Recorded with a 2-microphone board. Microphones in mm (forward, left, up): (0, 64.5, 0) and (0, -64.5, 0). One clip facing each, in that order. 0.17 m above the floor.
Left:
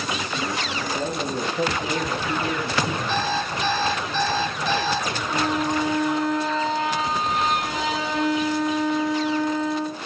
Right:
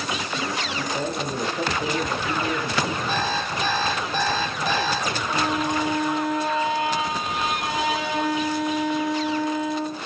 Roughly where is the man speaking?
Centre.